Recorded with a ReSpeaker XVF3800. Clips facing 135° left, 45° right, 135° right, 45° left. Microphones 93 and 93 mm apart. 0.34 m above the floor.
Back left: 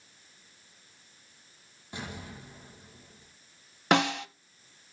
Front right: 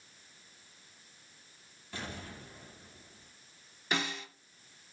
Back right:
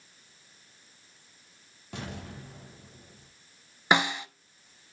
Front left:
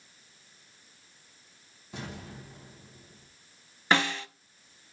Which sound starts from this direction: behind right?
An explosion, at 1.9 s.